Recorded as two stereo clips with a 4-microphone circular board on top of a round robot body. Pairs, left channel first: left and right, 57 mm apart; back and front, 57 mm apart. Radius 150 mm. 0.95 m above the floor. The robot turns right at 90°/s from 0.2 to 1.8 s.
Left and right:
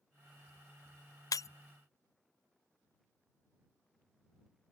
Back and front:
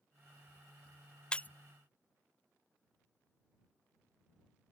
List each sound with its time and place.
1.3 s breaking glass: 105° left; by 1.5 s 120° left